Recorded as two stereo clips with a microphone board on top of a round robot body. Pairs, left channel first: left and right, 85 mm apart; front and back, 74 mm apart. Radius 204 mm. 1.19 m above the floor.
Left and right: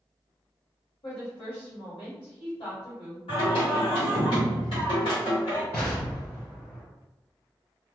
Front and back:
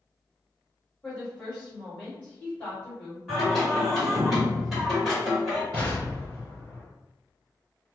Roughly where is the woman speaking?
Left.